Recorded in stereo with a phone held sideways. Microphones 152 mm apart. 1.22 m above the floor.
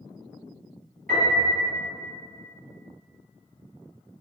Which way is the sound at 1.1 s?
75° right (ahead or behind).